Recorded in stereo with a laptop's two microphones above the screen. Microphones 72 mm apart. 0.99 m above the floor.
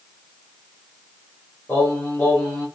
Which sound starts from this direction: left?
Singing, at 1.7 s.